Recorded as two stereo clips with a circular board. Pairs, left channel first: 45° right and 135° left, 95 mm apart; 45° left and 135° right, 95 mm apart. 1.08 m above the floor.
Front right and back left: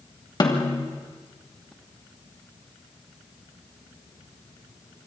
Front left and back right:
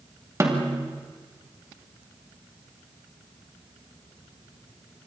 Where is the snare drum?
80° right, 2.5 m.